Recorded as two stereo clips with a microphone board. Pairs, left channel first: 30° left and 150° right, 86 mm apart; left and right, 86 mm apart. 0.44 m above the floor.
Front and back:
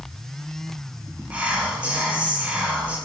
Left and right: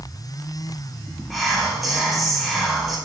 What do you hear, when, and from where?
1.3 s whispering: straight behind, 0.8 m